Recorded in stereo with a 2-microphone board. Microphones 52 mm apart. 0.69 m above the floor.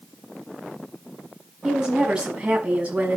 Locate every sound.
1.6 s a woman speaking: 15° right (ahead or behind), 5.5 m; by 3.2 s 25° right (ahead or behind), 5.5 m